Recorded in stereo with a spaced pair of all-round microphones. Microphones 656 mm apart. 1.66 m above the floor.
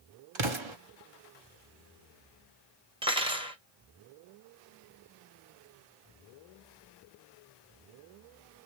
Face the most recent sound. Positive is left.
turn(degrees=-10)  # may be behind; listen again after turning